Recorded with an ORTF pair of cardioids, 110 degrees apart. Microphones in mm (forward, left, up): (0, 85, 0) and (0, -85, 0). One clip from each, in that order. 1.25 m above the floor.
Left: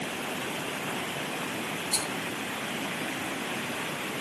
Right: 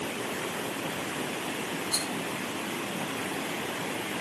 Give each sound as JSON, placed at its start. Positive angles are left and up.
{"t": 1.9, "sound": "a rattle", "azimuth_deg": 30, "distance_m": 6.0}